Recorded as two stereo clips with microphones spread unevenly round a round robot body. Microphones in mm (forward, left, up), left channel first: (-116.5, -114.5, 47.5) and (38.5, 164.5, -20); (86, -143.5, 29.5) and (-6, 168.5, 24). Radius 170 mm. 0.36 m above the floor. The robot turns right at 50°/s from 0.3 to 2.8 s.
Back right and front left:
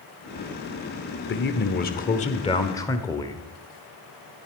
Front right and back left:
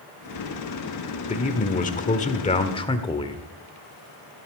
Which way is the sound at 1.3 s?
100° right.